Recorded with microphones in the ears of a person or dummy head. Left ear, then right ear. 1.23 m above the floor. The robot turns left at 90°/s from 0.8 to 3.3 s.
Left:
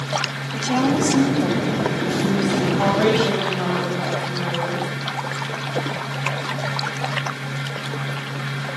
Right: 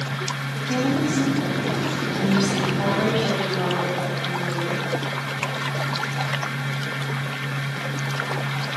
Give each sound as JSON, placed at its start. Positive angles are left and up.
{"t": 0.5, "sound": "a woman speaking", "azimuth_deg": 110, "distance_m": 8.0}
{"t": 2.8, "sound": "a woman speaking", "azimuth_deg": 55, "distance_m": 6.5}